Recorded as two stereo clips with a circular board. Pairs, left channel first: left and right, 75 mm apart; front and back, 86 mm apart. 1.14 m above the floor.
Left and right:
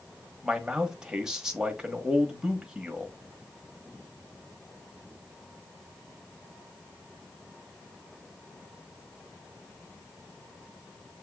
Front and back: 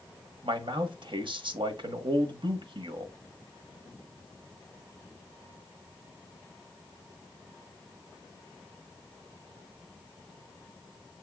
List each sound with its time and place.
0.4 s a man speaking: 170° right, 1.0 m